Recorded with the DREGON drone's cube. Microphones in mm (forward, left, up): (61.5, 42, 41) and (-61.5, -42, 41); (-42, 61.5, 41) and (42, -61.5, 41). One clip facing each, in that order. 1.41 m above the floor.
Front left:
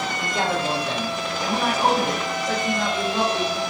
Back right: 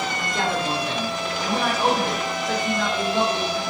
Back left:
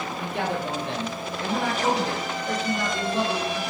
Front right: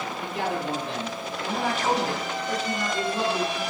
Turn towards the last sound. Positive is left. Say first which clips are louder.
# front left 2 dB, back left 1 dB
turn(degrees=115)